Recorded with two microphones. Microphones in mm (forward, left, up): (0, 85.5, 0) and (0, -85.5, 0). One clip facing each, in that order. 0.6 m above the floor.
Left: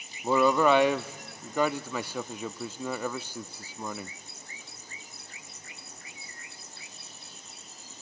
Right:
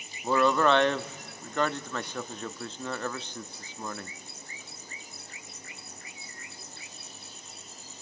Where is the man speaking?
10° left (ahead or behind), 0.6 m.